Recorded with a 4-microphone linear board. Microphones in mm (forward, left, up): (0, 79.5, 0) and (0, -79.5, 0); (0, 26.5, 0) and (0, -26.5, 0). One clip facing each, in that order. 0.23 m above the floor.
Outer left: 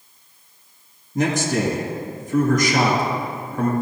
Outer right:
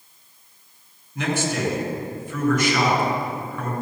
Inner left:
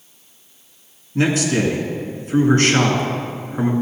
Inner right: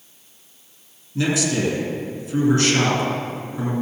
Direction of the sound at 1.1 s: 40° left (ahead or behind).